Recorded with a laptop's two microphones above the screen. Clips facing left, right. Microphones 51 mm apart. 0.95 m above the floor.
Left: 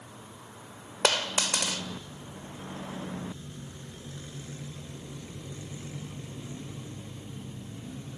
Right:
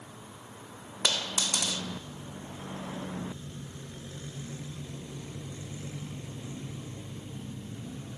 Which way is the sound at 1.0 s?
60° left (ahead or behind).